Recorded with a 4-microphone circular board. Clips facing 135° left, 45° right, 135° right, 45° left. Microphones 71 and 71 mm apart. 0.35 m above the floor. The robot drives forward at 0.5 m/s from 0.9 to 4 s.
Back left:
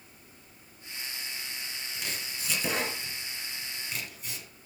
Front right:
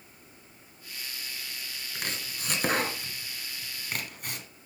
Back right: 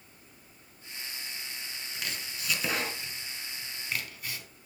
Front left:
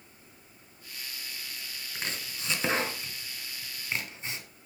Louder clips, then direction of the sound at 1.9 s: Front right 3 dB, front left 2 dB; 15° right.